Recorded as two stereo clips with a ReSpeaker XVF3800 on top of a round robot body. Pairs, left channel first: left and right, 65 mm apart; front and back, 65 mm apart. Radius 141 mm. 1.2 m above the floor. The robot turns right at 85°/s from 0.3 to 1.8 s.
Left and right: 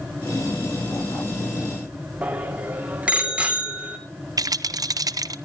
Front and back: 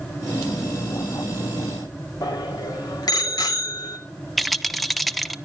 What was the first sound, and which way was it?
A bicycle bell, 20° right.